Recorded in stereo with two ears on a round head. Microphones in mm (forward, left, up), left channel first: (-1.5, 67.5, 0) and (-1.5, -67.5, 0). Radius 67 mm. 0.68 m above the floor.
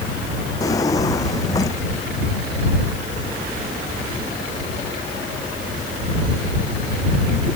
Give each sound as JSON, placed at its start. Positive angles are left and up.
{"t": 0.6, "sound": "a drawer", "side_deg": 25}